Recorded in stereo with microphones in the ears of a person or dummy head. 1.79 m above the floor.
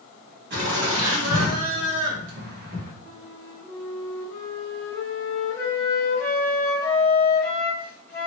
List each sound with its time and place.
0.5 s laughter: 55° right (ahead or behind), 1.5 m; by 2.9 s 50° right (ahead or behind), 1.4 m
3.0 s a flute: 20° left (ahead or behind), 1.3 m